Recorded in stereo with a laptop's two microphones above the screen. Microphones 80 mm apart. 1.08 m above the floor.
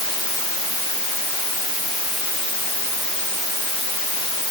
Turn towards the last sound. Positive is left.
No sound to turn to.